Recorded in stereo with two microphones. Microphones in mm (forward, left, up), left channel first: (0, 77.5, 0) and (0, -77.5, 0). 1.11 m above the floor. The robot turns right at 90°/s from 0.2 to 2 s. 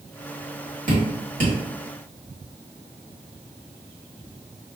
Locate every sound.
0.9 s dripping: 60° right (ahead or behind), 1.6 m; by 1.6 s 55° right (ahead or behind), 1.6 m